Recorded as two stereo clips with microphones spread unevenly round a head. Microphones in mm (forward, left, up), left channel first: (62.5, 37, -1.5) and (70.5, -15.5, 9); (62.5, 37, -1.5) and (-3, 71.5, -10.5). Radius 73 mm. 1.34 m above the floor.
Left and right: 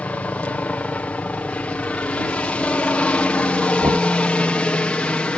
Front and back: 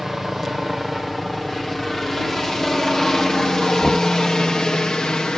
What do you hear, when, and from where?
0.0 s a helicopter: 70° left; by 5.4 s 45° left
3.8 s knocking: 115° right